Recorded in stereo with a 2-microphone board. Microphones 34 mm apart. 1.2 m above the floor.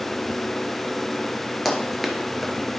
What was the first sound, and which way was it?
Running footsteps, centre (ahead or behind).